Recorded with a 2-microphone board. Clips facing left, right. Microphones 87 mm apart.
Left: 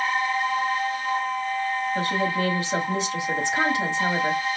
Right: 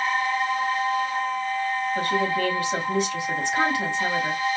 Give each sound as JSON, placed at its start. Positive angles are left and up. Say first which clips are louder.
{"t": 1.9, "sound": "a woman speaking", "louder": "right 2 dB", "side_deg": 20, "distance_m": 1.9}